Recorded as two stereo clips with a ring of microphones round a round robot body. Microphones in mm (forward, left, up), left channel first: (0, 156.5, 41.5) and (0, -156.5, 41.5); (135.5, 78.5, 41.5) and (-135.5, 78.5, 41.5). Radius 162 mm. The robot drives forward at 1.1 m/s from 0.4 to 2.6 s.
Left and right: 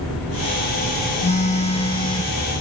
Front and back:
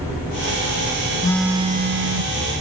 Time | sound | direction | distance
1.2 | a phone buzzing | 50° left | ?